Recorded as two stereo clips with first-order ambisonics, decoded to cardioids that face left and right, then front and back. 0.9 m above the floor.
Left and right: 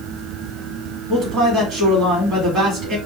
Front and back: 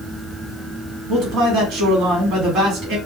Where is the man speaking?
145° right, 1.9 m.